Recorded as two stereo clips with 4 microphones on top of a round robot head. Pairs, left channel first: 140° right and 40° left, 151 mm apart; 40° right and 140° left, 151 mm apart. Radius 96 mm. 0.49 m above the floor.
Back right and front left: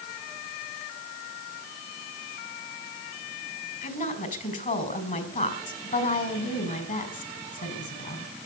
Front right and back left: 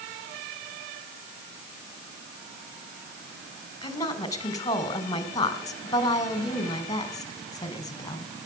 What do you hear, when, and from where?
3.8 s a woman speaking: 105° right, 3.5 m